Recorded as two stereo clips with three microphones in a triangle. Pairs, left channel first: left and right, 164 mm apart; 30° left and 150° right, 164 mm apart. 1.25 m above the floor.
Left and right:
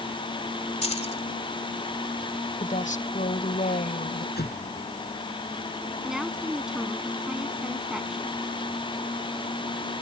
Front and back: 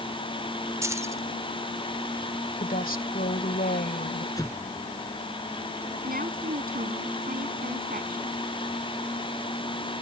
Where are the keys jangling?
140° left.